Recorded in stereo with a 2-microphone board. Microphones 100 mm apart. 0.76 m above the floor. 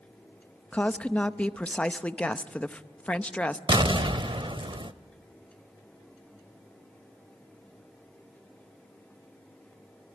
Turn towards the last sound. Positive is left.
turn(degrees=-55)  # may be behind; listen again after turning